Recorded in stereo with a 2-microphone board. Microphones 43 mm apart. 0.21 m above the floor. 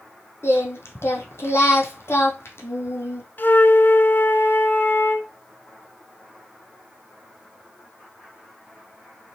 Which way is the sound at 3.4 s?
50° left (ahead or behind).